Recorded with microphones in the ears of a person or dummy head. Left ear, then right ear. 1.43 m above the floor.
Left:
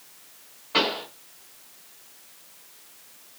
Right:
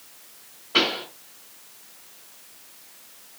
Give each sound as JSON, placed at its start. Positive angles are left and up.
{"t": 0.7, "sound": "a pop", "side_deg": 15, "distance_m": 1.3}